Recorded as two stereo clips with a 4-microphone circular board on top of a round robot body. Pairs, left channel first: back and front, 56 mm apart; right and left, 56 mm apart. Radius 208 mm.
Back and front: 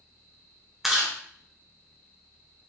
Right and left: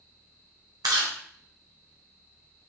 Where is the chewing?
85° left, 1.2 m.